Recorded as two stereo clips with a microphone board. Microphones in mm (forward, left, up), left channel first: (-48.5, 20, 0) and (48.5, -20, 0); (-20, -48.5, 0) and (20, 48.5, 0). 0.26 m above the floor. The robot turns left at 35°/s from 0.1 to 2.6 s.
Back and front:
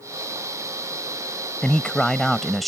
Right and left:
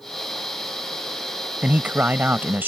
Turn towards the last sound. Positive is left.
turn(degrees=70)